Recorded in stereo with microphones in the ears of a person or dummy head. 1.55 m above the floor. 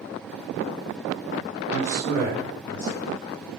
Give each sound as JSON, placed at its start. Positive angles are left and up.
{"t": 1.7, "sound": "a man speaking", "side_deg": 30, "distance_m": 5.5}